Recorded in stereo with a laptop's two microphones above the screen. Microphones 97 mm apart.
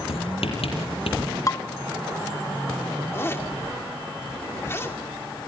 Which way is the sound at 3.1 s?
25° left (ahead or behind).